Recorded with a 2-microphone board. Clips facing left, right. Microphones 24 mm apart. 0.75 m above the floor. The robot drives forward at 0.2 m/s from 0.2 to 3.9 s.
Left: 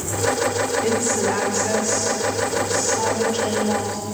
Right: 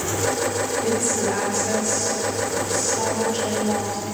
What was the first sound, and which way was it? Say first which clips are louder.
A woman speaking: left 2 dB; 35° left (ahead or behind).